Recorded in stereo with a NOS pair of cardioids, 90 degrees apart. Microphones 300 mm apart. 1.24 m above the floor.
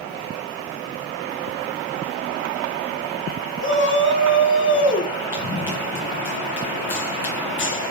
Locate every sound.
3.6 s a shout: 40° left, 3 m
5.3 s running footsteps: 40° left, 4.5 m